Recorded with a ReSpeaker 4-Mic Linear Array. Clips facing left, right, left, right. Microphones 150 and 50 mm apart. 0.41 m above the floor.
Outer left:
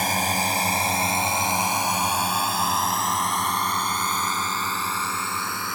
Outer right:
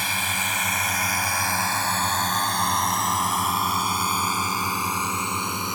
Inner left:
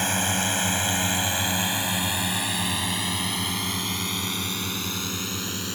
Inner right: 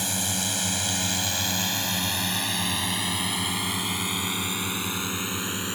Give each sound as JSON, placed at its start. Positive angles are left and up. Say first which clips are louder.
{"t": 0.0, "sound": "a drone", "louder": "outer left 6 dB, inner left 5 dB", "side_deg": 45}